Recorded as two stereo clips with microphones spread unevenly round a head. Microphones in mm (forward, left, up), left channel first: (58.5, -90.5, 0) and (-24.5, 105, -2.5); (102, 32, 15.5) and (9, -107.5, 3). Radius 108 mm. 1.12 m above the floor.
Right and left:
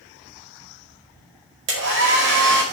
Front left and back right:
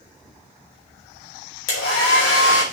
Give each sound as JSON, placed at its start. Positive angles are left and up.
{"t": 1.7, "sound": "a hair dryer", "azimuth_deg": 80, "distance_m": 4.5}